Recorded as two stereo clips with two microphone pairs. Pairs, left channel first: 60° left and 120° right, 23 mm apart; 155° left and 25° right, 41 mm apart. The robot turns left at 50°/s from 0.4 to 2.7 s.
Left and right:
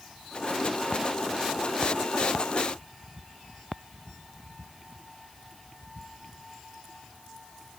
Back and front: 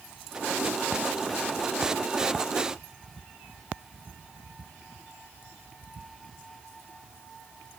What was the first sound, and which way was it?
Only background noise.